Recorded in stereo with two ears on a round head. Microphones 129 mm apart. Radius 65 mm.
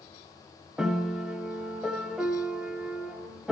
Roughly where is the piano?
Centre.